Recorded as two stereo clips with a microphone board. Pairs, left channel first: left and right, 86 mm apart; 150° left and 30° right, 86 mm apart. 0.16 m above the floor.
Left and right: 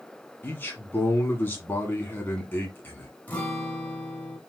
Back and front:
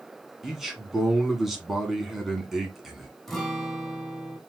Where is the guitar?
70° left, 1.4 m.